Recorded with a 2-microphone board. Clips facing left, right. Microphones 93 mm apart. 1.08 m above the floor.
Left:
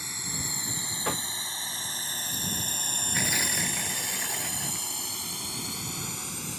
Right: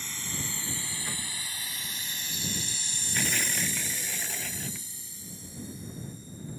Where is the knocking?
65° left (ahead or behind).